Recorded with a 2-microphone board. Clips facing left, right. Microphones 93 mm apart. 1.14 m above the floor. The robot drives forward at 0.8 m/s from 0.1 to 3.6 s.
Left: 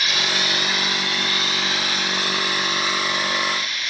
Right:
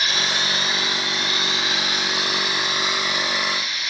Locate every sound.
0.0 s running water: 30° right (ahead or behind), 2 m; by 3.9 s 15° right (ahead or behind), 5 m